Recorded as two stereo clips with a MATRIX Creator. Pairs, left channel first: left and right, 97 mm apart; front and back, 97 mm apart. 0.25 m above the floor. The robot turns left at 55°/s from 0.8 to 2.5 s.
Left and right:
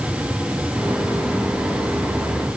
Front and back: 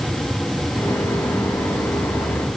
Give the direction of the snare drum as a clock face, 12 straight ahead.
No snare drum in this recording.